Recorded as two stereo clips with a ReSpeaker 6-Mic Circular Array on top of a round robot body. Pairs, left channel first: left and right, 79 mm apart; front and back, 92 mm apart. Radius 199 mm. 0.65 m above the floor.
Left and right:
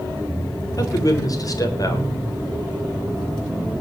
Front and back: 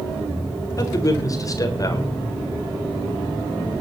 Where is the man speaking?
50° left, 3.5 m.